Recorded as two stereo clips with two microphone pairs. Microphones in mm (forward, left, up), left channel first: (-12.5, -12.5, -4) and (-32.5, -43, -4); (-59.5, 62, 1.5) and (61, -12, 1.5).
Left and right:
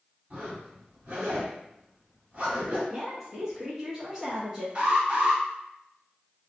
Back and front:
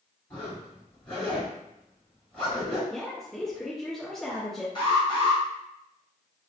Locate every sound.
0.3 s a zipper: 135° right, 1.9 m
2.9 s a woman speaking: 135° right, 1.1 m
4.8 s an alarm: 170° right, 1.3 m